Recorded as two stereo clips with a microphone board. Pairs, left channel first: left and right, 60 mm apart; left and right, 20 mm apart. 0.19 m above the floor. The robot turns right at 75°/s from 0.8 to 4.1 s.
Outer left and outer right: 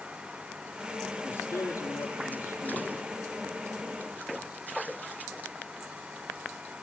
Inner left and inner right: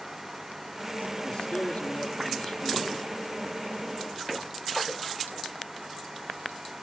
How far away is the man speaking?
About 5 m.